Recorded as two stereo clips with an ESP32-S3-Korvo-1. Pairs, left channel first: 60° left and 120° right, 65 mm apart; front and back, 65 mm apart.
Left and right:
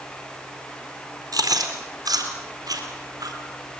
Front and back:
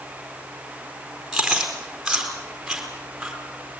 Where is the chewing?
95° right, 4 m.